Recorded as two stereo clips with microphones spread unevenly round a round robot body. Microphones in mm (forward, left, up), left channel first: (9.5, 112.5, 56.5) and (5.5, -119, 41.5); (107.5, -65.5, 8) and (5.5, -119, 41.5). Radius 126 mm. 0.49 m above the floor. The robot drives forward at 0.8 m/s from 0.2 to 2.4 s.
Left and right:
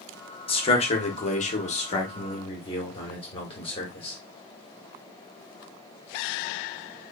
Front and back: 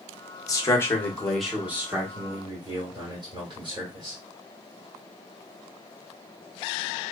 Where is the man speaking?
30° left, 1.3 m; by 4.2 s 145° left, 1.3 m.